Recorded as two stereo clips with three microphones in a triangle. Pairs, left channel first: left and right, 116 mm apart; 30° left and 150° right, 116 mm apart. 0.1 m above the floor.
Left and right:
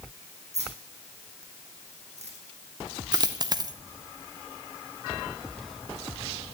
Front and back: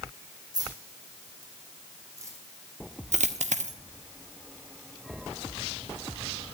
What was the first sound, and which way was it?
Keys jangling, 95° right.